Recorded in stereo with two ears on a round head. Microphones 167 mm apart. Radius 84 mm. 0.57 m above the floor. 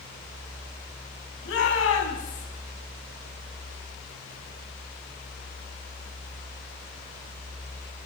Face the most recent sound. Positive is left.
turn(degrees=80)